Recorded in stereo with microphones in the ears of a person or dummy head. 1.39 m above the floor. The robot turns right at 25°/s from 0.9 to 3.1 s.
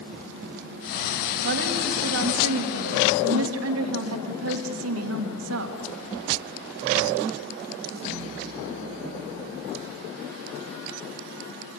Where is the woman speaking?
125° right, 2 m; by 5.8 s 80° right, 2 m.